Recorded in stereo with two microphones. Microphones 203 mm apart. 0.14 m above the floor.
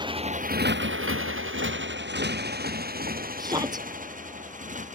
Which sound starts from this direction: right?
A motorcycle, at 0.0 s.